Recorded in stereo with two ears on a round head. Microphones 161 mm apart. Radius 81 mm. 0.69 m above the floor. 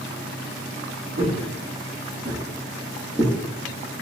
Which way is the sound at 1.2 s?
50° right (ahead or behind).